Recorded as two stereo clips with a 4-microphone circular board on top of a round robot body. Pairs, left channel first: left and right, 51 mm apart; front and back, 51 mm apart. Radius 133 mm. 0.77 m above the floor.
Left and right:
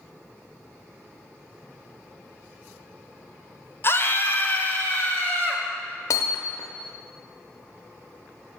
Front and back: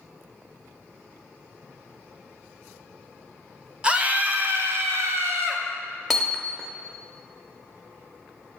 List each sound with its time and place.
3.8 s a scream: 115° left, 1.3 m; by 5.6 s 160° left, 2.5 m
6.1 s hammering: 90° left, 0.6 m